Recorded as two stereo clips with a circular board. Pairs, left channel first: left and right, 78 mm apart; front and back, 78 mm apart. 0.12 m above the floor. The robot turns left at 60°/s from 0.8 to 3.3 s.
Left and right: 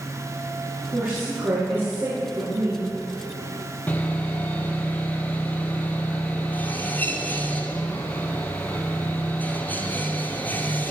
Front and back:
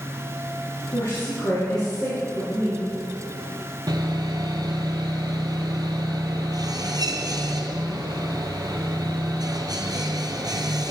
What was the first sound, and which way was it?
A woman speaking, 25° right.